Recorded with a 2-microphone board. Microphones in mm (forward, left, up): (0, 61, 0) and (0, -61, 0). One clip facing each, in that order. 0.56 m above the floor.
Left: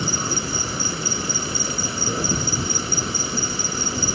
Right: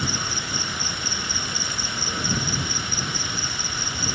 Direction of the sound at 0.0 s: 35° left (ahead or behind).